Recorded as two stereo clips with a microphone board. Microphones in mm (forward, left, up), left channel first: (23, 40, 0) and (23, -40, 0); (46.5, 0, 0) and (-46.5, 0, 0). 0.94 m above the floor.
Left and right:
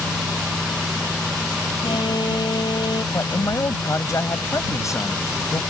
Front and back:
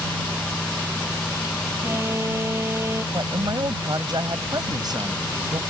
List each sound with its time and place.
1.8 s an alarm: 115° left
3.1 s a man speaking: 140° left